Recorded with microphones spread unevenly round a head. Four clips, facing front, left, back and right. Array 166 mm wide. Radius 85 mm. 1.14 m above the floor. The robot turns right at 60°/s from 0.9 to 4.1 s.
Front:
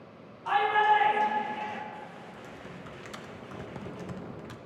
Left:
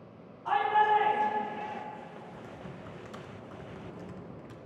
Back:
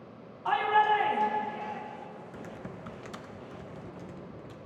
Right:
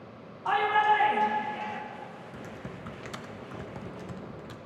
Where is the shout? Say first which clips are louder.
Right 1 dB, front 1 dB; 120° right, 2 m; by 1.8 s 70° right, 2 m.